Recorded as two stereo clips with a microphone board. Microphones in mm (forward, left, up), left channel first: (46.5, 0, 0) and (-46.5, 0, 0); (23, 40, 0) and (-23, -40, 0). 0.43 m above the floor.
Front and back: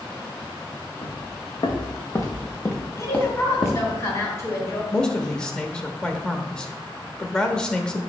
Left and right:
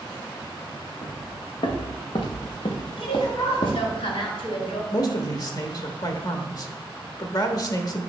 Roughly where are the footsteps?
Ahead left.